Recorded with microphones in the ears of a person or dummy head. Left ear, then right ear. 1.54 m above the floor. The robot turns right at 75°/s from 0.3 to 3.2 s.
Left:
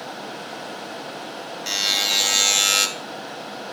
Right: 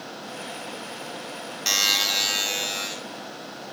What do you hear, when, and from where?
1.7 s a buzzer: 25° right, 3.5 m; by 2.9 s 65° left, 3.5 m